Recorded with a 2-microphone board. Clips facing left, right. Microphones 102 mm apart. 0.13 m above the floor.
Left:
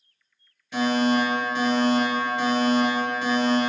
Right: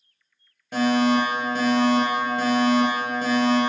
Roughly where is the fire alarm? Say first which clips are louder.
Right 2 dB; right.